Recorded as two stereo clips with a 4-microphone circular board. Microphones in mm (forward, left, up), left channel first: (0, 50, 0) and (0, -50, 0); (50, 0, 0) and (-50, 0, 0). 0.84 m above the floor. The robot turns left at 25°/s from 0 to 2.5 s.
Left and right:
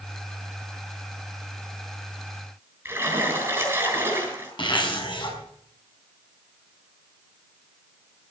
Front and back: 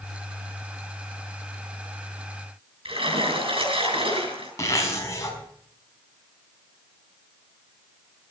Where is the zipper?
55° left, 4.5 m.